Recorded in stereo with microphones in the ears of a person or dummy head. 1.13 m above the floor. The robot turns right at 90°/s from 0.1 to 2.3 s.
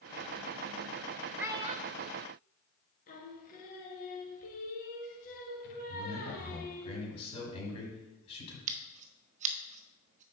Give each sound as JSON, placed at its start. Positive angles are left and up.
{"t": 1.4, "sound": "a child speaking", "azimuth_deg": -175, "distance_m": 0.8}
{"t": 3.1, "sound": "singing", "side_deg": 40, "distance_m": 1.8}
{"t": 5.9, "sound": "a man speaking", "side_deg": 25, "distance_m": 4.5}
{"t": 8.7, "sound": "scissors", "side_deg": -40, "distance_m": 1.2}